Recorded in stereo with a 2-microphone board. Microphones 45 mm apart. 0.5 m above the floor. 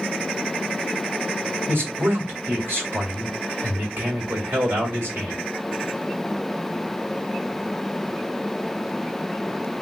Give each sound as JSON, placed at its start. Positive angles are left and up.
{"t": 1.7, "sound": "a man speaking", "side_deg": -50, "distance_m": 1.9}